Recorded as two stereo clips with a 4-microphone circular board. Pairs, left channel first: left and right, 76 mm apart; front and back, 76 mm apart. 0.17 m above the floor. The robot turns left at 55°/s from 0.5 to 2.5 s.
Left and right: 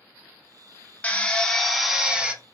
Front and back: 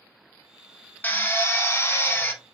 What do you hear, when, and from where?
1.0 s a drill: 40° left, 0.5 m; by 2.3 s 35° right, 0.5 m